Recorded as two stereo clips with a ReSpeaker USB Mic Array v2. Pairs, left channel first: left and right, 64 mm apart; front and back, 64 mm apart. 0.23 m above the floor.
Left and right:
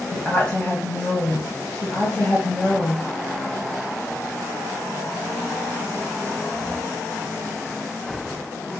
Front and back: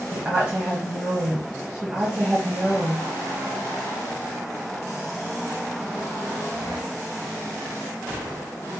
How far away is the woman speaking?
About 1.1 m.